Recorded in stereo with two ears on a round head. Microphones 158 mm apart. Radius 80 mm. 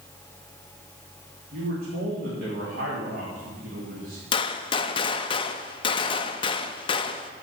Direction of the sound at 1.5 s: 50° right (ahead or behind).